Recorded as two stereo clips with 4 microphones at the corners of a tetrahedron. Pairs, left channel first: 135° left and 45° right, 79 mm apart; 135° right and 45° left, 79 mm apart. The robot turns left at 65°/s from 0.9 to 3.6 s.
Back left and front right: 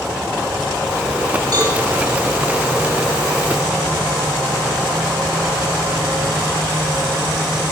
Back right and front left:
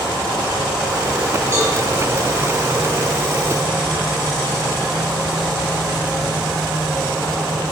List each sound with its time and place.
1.5 s a cowbell: 15° right, 2.5 m; by 1.7 s 25° right, 2.5 m